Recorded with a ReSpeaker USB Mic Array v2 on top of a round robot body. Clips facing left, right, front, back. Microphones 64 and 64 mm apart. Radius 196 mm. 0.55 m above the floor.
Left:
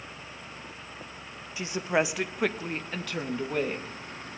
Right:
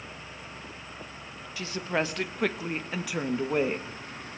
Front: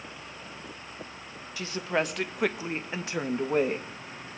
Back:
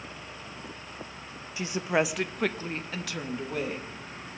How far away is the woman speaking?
About 1.1 m.